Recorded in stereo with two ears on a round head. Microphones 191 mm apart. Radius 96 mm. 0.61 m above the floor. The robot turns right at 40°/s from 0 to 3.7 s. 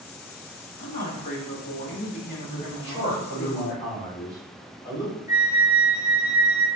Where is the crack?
I don't hear a crack.